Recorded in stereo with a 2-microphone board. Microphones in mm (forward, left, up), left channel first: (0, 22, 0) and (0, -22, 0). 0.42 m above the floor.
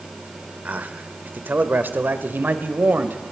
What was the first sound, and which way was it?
A man speaking, 40° right (ahead or behind).